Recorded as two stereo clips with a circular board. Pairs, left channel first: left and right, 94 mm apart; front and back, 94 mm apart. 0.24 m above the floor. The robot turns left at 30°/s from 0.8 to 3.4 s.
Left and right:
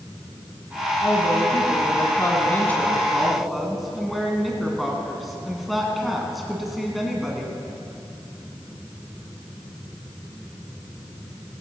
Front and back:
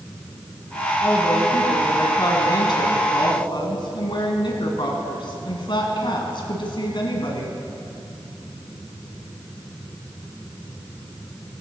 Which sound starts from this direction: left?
A woman speaking, at 1.0 s.